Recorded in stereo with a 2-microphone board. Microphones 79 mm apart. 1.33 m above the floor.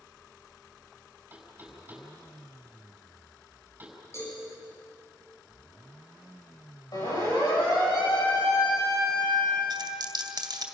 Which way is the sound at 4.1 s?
35° left (ahead or behind).